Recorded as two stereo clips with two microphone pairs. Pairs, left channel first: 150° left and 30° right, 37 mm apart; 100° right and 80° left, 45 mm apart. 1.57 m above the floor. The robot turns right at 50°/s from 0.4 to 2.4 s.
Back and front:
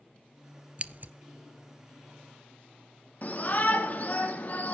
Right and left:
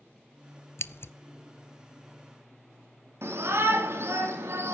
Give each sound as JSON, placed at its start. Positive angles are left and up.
{"t": 0.8, "sound": "scissors", "azimuth_deg": -85, "distance_m": 0.6}
{"t": 3.2, "sound": "a shout", "azimuth_deg": 105, "distance_m": 4.0}